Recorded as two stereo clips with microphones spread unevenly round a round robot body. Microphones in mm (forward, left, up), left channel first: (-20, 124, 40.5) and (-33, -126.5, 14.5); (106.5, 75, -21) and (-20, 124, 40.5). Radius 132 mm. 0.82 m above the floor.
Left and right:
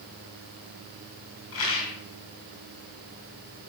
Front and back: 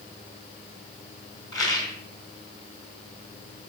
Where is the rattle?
45° left, 5 m.